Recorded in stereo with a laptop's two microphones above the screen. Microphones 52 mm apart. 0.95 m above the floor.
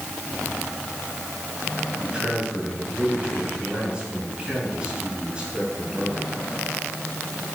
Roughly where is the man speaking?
Centre.